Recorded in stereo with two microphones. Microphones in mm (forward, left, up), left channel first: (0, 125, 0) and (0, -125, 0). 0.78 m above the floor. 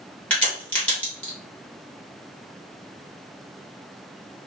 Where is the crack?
5° left (ahead or behind), 2 m.